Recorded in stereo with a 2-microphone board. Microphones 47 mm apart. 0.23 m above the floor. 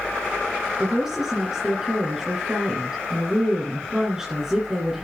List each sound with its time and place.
0.8 s a woman speaking: 15° right (ahead or behind), 3 m